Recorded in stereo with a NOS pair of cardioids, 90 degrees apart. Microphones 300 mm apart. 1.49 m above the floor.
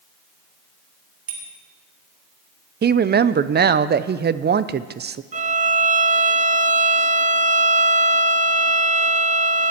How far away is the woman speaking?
About 0.7 m.